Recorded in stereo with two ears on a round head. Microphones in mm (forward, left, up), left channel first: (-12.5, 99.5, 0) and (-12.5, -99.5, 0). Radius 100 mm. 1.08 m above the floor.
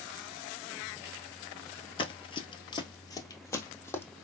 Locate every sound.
2.0 s running footsteps: 25° left (ahead or behind), 1.1 m; by 4.0 s 10° left (ahead or behind), 1.7 m